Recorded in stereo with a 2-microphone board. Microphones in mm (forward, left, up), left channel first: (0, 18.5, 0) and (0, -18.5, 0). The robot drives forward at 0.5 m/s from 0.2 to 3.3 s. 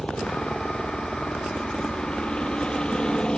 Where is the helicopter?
30° left (ahead or behind); by 3.4 s 25° left (ahead or behind).